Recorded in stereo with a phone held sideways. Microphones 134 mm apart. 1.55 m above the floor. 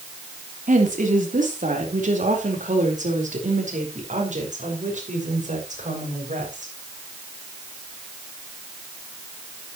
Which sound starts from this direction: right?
A woman speaking, at 0.7 s.